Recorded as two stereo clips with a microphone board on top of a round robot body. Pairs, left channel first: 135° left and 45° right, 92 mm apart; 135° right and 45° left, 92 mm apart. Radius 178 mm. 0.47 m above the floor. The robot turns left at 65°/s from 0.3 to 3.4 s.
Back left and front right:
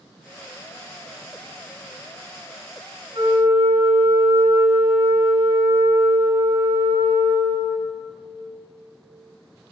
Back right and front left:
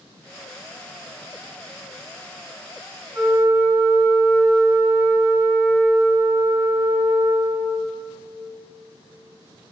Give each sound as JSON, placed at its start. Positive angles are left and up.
{"t": 3.1, "sound": "a flute", "azimuth_deg": -20, "distance_m": 1.3}